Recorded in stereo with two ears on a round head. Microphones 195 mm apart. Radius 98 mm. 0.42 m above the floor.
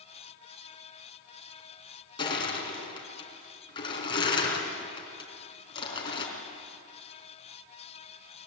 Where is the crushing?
25° left (ahead or behind), 4 m.